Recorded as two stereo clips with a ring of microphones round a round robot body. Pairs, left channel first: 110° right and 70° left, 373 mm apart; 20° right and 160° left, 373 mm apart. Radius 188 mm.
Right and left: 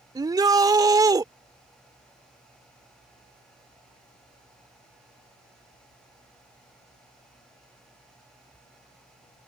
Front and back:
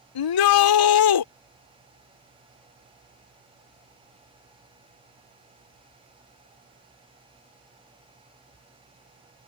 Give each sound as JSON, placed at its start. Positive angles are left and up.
{"t": 0.1, "sound": "a shout", "azimuth_deg": -10}